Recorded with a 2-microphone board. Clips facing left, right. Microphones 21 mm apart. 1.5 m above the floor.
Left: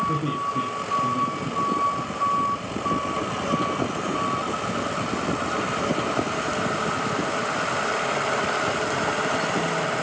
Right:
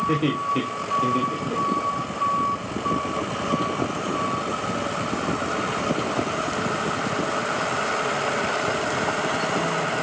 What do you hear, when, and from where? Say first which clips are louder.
0.1 s laughter: right 3 dB; 75° right (ahead or behind), 3 m; by 2.0 s 70° right (ahead or behind), 2.5 m